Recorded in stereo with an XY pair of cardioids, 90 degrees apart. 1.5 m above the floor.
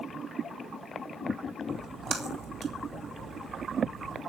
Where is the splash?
50° right, 2.5 m.